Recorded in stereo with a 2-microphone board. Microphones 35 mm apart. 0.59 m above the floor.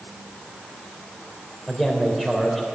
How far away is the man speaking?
About 3 m.